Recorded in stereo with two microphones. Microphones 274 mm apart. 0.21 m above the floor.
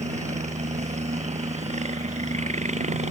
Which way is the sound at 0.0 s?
25° right (ahead or behind).